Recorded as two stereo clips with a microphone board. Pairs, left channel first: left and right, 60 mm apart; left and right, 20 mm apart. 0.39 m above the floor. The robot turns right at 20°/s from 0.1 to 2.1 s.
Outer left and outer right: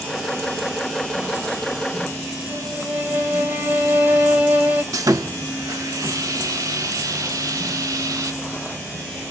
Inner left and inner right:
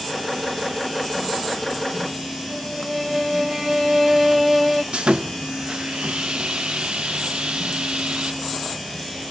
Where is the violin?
30° right (ahead or behind), 1.4 m.